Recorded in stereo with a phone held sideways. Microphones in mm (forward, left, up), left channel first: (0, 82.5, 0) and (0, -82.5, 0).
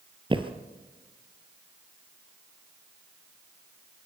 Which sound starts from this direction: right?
Footsteps, at 0.3 s.